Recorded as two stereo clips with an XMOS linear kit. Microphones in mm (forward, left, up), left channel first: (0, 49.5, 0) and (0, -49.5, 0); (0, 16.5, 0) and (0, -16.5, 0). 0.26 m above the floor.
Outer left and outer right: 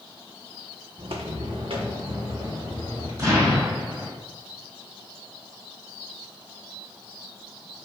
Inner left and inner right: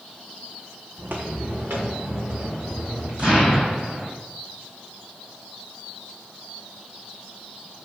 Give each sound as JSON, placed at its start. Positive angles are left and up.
{"t": 1.0, "sound": "footsteps", "side_deg": -65, "distance_m": 0.6}
{"t": 3.2, "sound": "an explosion", "side_deg": -35, "distance_m": 1.6}